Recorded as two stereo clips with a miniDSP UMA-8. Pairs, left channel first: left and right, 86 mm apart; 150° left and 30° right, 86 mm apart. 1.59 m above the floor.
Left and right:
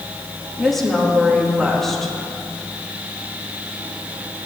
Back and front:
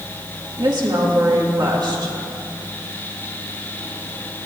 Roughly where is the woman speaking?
Ahead.